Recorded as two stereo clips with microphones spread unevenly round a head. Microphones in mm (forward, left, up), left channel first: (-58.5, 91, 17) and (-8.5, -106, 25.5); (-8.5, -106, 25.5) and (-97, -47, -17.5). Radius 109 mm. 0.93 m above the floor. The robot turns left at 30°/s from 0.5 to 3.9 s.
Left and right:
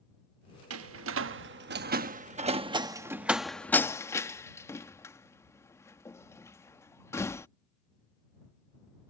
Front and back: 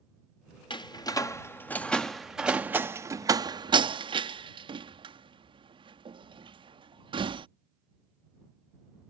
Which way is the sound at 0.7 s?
85° right.